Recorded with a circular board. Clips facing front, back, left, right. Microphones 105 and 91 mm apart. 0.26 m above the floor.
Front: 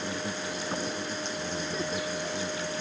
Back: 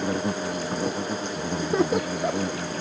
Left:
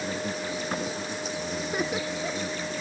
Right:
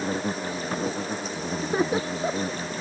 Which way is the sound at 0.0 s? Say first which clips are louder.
Back 8 dB, right 3 dB; 140° right.